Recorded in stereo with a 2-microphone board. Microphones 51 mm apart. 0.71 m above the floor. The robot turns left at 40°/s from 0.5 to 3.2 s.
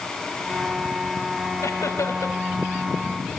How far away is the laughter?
About 4.5 m.